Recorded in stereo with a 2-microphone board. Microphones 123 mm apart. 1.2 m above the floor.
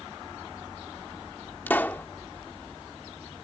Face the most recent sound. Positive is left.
turn(degrees=15)  # may be behind; listen again after turning